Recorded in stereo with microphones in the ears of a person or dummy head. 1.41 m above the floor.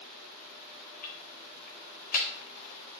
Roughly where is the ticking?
Left.